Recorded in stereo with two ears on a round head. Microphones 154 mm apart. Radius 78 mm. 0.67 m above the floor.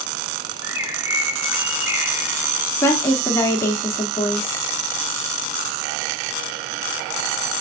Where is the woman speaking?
15° left (ahead or behind), 1.2 m.